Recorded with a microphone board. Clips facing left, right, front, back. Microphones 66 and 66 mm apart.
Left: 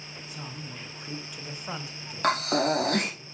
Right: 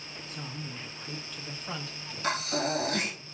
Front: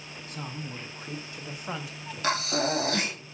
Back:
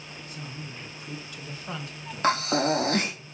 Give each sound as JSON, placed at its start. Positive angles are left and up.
{"t": 0.3, "sound": "a man speaking", "azimuth_deg": 15, "distance_m": 2.5}
{"t": 2.2, "sound": "breathing", "azimuth_deg": 125, "distance_m": 3.5}